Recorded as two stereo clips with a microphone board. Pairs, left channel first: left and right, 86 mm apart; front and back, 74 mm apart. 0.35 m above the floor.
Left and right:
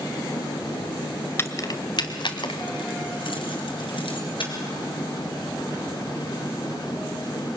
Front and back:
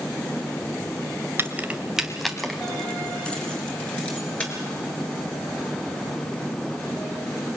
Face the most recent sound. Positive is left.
turn(degrees=70)